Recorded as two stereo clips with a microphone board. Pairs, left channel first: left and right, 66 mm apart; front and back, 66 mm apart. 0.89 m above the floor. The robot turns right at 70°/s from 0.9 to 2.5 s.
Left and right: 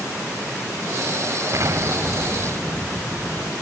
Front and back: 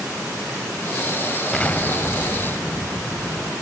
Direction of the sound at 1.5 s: 80° right.